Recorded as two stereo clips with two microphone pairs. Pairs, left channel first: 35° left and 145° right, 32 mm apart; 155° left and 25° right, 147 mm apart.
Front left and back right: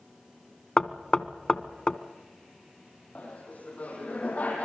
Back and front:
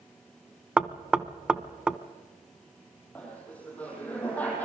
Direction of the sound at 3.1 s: 75° left.